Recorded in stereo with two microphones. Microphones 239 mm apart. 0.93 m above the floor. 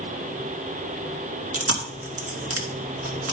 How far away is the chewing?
About 1.9 m.